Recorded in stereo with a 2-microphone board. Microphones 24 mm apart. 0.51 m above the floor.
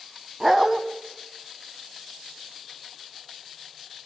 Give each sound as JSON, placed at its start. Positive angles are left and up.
{"t": 0.4, "sound": "a dog barking", "side_deg": -20, "distance_m": 1.5}